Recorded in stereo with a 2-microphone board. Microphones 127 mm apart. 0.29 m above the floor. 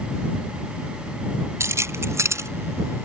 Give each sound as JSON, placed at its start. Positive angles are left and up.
{"t": 1.6, "sound": "keys jangling", "side_deg": -25}